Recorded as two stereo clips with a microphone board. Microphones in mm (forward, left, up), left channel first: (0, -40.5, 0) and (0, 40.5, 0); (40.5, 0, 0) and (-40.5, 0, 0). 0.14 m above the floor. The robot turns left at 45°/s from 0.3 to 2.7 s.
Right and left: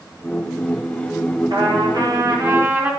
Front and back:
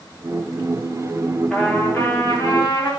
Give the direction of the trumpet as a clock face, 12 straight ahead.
9 o'clock.